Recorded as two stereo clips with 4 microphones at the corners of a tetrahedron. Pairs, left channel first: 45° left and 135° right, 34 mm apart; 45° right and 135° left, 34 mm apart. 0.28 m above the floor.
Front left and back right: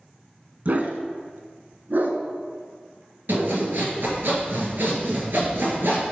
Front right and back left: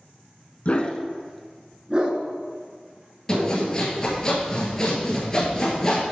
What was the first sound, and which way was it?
A dog barking, 95° right.